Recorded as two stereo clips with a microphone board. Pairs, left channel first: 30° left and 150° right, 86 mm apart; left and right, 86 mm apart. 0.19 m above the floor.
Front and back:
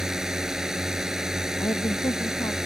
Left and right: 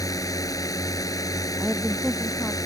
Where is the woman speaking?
Straight ahead.